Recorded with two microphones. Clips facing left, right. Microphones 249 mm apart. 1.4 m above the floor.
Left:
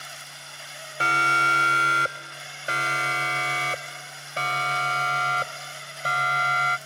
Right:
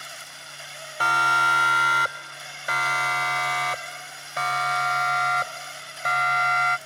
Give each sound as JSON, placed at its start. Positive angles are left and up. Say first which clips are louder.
{"t": 1.0, "sound": "a siren", "louder": "even", "side_deg": 25}